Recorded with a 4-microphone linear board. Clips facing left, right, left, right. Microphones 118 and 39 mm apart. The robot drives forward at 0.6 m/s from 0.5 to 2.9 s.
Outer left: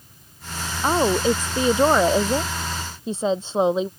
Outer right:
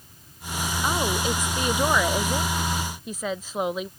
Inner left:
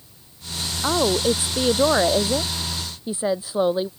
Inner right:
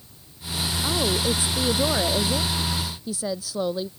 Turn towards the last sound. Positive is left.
turn(degrees=30)  # may be behind; listen again after turning